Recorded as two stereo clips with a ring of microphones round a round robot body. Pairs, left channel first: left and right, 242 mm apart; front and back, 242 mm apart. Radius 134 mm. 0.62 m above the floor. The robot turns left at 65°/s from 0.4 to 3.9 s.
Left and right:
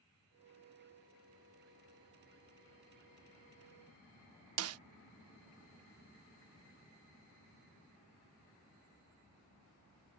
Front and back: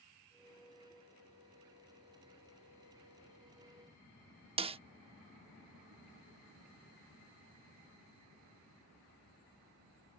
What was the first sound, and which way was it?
A snare drum, 110° right.